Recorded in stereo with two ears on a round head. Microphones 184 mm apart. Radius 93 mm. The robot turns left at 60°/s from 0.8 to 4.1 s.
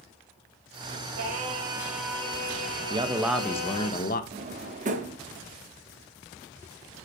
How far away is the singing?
About 2.5 m.